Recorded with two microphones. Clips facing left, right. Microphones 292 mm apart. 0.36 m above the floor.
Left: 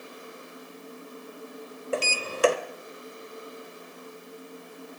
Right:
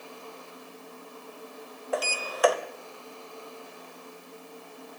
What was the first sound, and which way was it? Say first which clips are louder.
A sliding door: left 1 dB; 30° left (ahead or behind).